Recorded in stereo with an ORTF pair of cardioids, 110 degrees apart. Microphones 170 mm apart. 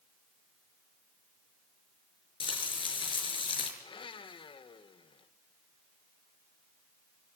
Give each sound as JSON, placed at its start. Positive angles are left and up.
{"t": 2.4, "sound": "frying", "azimuth_deg": 30, "distance_m": 6.0}
{"t": 3.8, "sound": "a blender", "azimuth_deg": 30, "distance_m": 2.0}